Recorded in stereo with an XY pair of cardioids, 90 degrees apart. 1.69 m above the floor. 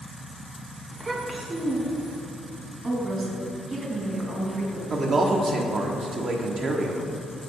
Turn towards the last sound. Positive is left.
turn(degrees=-55)